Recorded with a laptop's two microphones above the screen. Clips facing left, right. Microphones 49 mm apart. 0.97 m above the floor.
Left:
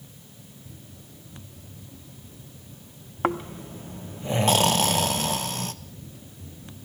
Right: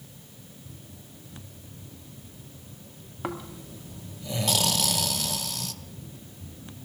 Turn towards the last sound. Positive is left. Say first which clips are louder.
# left 8 dB
turn(degrees=40)  # may be behind; listen again after turning